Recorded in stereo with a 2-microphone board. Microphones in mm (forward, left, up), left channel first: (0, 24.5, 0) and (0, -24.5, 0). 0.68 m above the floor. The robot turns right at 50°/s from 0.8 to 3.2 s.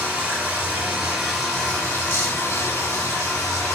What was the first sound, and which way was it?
Running water, 25° right.